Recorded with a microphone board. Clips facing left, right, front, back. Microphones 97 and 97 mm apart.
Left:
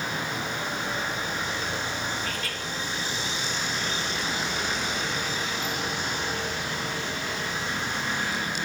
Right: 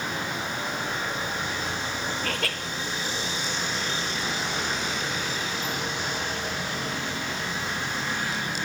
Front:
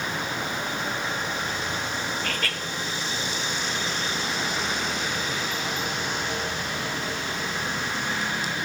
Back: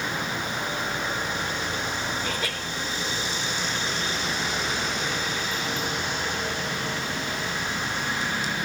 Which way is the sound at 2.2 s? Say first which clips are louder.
Right 3 dB, even; 105° right.